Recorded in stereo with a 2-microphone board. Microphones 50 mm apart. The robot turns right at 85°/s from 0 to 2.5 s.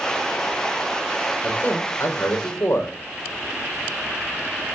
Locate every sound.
1.4 s a man speaking: 15° left, 5 m; by 3.0 s 105° left, 5 m